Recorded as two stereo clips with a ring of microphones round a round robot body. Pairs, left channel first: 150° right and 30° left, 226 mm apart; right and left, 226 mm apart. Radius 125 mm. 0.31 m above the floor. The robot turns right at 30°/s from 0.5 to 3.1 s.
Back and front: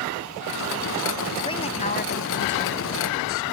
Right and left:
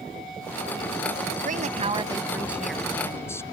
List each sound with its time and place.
1.4 s a woman speaking: 140° left; by 3.4 s 170° right